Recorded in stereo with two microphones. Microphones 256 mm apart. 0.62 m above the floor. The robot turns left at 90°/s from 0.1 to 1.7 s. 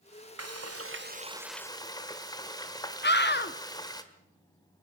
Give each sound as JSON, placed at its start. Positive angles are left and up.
{"t": 0.4, "sound": "frying", "azimuth_deg": -80, "distance_m": 1.5}
{"t": 3.0, "sound": "a scream", "side_deg": 45, "distance_m": 0.9}